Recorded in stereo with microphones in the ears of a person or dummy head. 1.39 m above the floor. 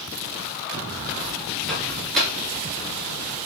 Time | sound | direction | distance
1.7 | a microwave | 5° right (ahead or behind) | 2.0 m